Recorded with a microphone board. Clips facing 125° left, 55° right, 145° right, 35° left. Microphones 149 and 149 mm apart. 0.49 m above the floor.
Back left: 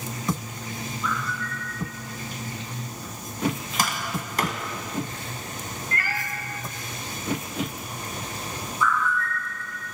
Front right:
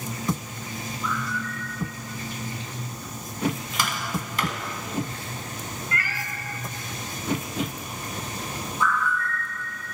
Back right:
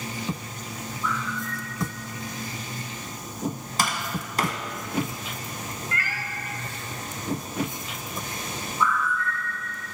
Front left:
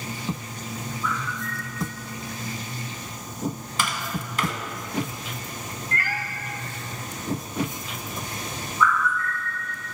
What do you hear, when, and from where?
1.0 s a bird: 75° right, 1.2 m
3.8 s tapping: 165° left, 0.7 m
5.9 s a cat meowing: 80° left, 0.6 m
8.8 s a bird: 85° right, 1.5 m